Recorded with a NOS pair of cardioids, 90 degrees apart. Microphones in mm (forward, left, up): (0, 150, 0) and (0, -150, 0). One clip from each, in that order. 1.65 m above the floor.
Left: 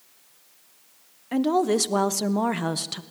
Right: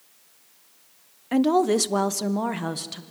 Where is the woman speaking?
20° right, 1.0 m; by 3.0 s 25° left, 1.5 m.